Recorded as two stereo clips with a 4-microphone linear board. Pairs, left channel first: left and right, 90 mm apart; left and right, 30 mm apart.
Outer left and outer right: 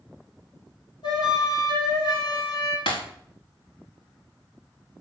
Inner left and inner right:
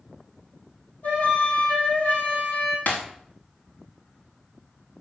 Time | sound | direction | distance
1.0 | a flute | 65° left (ahead or behind) | 5 m
2.9 | breaking glass | 85° left | 4 m